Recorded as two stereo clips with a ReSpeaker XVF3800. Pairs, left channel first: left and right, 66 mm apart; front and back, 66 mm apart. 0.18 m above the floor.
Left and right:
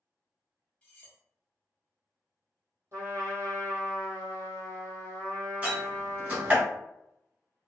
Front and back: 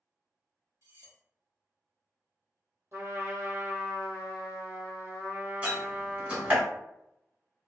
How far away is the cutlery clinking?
About 1.3 m.